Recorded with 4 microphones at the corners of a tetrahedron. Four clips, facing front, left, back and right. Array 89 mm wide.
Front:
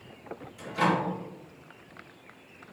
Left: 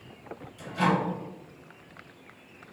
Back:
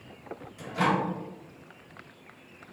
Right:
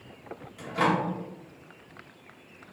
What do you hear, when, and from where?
0.6 s a microwave: 110° right, 3.5 m